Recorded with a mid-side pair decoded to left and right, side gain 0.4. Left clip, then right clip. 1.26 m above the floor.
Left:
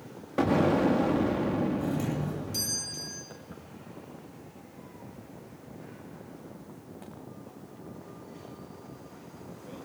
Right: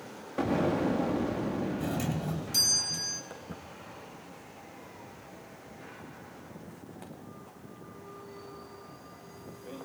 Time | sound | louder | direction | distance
0.4 | an explosion | left 4 dB | 35° left | 3 m
1.8 | a doorbell | left 2 dB | 50° right | 8.5 m
3.3 | footsteps | right 2 dB | 30° right | 5 m